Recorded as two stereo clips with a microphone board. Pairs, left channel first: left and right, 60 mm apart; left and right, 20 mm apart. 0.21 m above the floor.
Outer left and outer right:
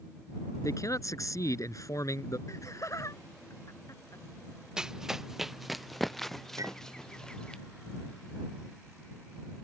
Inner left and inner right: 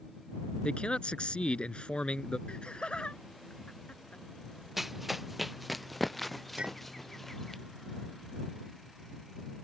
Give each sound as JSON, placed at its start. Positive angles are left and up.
{"t": 0.6, "sound": "a man speaking", "side_deg": 60}
{"t": 2.5, "sound": "laughter", "side_deg": 60}
{"t": 4.8, "sound": "running footsteps", "side_deg": -10}
{"t": 6.6, "sound": "a clink", "side_deg": -65}